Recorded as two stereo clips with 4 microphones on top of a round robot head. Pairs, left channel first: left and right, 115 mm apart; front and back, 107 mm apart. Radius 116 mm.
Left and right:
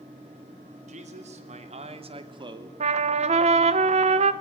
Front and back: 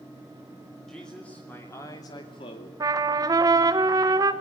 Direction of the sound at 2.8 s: 120° right.